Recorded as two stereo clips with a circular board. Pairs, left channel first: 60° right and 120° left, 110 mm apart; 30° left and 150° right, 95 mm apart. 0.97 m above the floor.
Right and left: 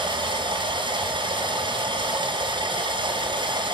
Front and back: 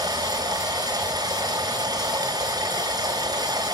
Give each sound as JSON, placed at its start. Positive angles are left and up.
{"t": 0.0, "sound": "running water", "azimuth_deg": 165, "distance_m": 4.0}